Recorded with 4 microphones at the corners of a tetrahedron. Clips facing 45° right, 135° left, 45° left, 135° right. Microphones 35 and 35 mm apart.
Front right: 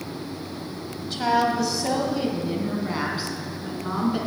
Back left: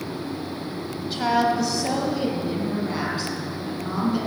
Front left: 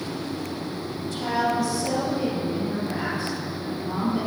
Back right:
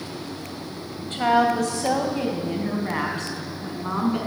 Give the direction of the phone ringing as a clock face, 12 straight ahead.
I don't hear a phone ringing.